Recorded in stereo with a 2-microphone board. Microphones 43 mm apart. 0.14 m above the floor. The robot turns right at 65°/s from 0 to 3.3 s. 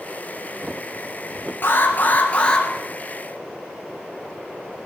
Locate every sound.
1.6 s an alarm: 95° left, 2.5 m; by 2.7 s 165° left, 2.5 m